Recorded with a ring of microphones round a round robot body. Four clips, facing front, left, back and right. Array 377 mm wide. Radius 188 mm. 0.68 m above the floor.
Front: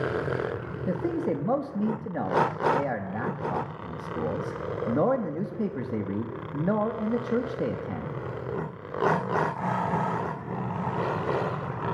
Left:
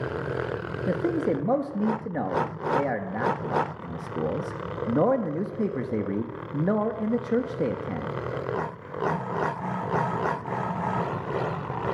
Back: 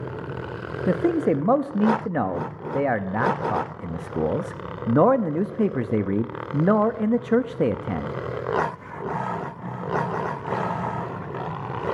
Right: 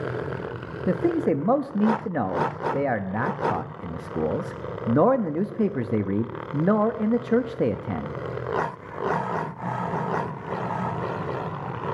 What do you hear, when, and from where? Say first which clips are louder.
0.9 s a man speaking: right 3 dB, back 7 dB; 155° right, 0.6 m